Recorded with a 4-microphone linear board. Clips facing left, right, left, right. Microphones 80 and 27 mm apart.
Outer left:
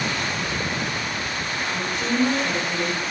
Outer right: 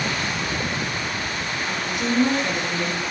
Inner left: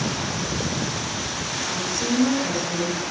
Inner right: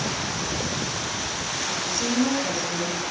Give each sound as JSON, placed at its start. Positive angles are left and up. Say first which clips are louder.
{"t": 1.7, "sound": "a woman speaking", "louder": "even, inner left 2 dB", "side_deg": -25, "distance_m": 8.0}